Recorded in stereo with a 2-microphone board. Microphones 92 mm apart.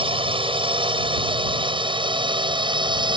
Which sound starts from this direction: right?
A drone, at 0.0 s.